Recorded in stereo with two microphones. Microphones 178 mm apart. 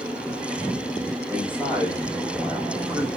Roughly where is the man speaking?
Centre.